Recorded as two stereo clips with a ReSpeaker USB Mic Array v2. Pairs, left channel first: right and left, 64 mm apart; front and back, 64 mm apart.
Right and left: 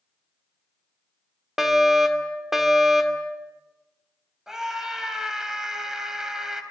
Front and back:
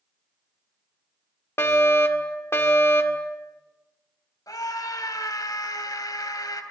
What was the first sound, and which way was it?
A fire alarm, 5° left.